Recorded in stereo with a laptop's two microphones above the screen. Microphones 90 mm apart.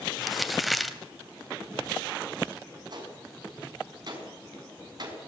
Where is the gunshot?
50° right (ahead or behind), 5.5 m.